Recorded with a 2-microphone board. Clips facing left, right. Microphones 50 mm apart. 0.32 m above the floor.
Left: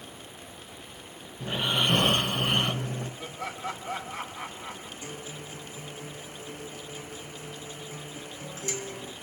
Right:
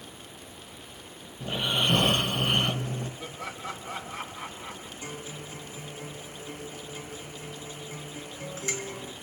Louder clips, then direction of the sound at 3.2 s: Left 2 dB; 45° left (ahead or behind).